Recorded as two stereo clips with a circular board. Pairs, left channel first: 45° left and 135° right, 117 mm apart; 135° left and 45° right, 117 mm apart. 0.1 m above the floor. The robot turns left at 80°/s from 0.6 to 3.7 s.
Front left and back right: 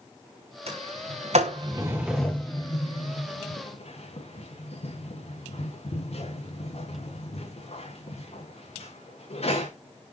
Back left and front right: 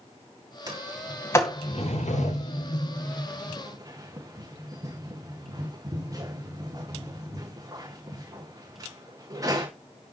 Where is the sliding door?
100° right, 9.5 m; by 9.7 s 15° left, 9.5 m.